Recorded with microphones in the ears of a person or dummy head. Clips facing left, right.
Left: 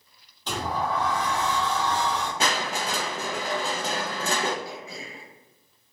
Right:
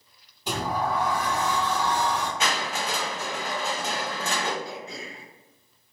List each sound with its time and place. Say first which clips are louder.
0.5 s a sliding door: right 1 dB; 10° right (ahead or behind), 0.7 m
2.4 s crushing: left 1 dB; 35° left (ahead or behind), 0.5 m
4.6 s throat clearing: right 1 dB; 10° left (ahead or behind), 1.0 m